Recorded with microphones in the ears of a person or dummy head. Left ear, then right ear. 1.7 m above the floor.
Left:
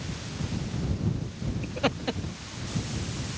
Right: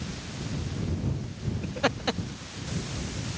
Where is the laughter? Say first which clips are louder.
Right 1 dB; 5° right (ahead or behind); by 3.4 s 75° right (ahead or behind).